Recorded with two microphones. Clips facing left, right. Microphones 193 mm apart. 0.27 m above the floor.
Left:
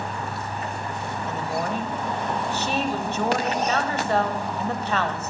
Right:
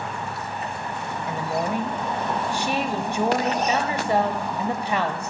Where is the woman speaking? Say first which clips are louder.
Right 2 dB; 15° right (ahead or behind), 1.0 m.